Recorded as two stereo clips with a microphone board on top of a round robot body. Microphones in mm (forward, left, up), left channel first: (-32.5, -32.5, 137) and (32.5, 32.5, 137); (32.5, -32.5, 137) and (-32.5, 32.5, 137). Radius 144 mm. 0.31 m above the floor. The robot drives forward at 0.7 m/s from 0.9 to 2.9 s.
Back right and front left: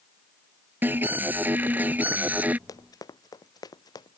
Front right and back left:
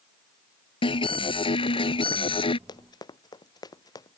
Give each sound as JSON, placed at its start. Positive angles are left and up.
{"t": 0.8, "sound": "an alarm", "azimuth_deg": -25}
{"t": 2.7, "sound": "running footsteps", "azimuth_deg": -85}